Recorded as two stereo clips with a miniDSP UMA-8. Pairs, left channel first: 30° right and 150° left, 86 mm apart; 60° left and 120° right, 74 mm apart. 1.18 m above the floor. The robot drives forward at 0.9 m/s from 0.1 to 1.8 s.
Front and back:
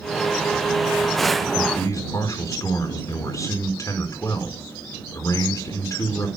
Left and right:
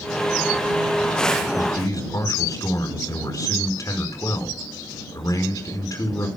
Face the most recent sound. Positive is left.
turn(degrees=20)